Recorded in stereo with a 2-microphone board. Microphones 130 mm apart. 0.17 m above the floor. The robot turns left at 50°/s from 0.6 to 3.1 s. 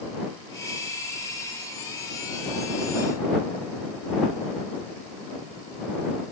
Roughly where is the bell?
No bell in this recording.